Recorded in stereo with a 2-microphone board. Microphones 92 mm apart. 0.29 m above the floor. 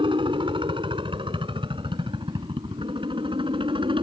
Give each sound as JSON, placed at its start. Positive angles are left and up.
{"t": 0.0, "sound": "a helicopter", "side_deg": -65}